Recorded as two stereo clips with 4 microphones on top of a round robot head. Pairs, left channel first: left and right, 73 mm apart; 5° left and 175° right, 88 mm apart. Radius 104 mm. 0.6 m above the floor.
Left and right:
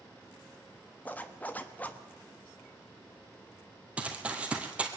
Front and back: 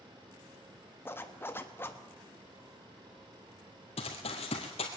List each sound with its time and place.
1.1 s a zipper: 45° left, 1.2 m
4.0 s running footsteps: 15° right, 1.3 m